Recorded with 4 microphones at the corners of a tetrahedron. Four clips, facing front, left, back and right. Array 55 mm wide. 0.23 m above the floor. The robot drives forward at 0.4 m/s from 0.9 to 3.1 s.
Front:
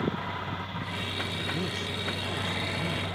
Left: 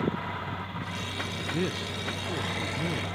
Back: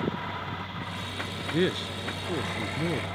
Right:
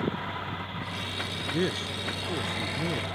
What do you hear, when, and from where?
1.5 s a man speaking: 160° right; by 3.0 s 165° right